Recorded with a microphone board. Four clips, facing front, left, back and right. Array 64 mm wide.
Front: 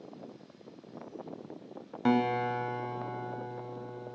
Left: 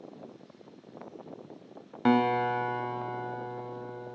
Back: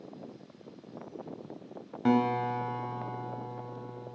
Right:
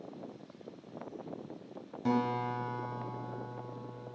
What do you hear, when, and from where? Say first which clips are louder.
2.0 s a guitar: left 7 dB, back 1 dB; 75° left, 1.0 m